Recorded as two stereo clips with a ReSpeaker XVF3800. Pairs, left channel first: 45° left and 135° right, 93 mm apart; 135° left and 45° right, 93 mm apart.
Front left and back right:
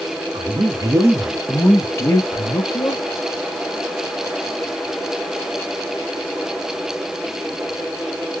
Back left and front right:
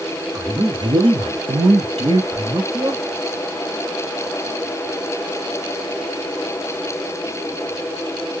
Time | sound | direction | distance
0.3 | a man speaking | 100° right | 0.9 m